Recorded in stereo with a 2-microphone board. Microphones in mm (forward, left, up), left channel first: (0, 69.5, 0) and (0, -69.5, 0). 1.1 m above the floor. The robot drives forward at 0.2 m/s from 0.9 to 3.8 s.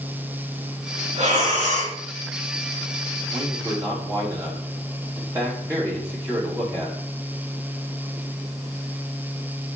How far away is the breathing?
About 1.9 m.